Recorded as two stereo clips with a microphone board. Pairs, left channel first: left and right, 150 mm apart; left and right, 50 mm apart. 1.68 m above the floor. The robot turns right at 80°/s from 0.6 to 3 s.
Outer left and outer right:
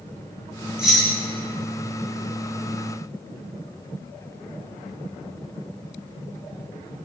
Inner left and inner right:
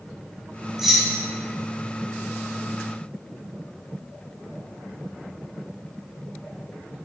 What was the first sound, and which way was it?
Keys jangling, 5° right (ahead or behind).